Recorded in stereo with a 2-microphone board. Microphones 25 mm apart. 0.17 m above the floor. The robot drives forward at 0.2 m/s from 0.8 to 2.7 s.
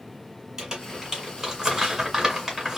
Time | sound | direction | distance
0.6 | crumpling | 25° right (ahead or behind) | 1.6 m